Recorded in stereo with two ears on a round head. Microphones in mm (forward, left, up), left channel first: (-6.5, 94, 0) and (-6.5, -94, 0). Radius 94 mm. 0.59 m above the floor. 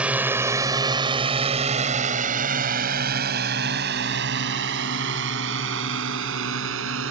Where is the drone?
5° right (ahead or behind); by 7.1 s 65° right (ahead or behind).